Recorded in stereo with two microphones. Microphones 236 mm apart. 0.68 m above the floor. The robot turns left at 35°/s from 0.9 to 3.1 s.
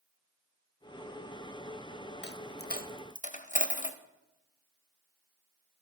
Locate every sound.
2.2 s a dropped coin: 45° left (ahead or behind), 0.6 m; by 4.0 s 35° left (ahead or behind), 0.6 m